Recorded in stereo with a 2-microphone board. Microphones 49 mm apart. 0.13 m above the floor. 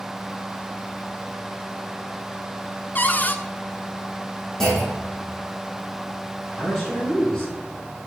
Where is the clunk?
10° left (ahead or behind), 4 m.